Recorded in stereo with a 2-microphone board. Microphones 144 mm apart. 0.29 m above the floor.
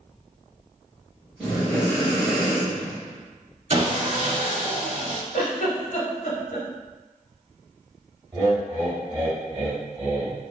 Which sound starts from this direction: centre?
Breathing, at 1.4 s.